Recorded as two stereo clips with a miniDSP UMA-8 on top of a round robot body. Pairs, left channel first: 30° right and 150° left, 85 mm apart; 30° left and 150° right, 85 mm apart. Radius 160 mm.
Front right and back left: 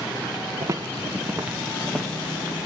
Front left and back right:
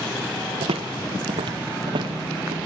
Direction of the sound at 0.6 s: 160° right.